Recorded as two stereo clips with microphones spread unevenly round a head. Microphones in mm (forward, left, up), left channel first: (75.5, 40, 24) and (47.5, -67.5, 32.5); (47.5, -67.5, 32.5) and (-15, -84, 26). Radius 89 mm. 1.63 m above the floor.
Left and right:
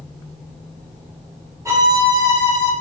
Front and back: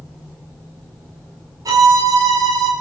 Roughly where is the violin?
Behind.